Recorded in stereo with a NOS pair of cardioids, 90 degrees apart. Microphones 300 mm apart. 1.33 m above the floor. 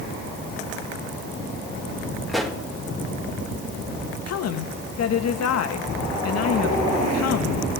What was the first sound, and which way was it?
A pop, straight ahead.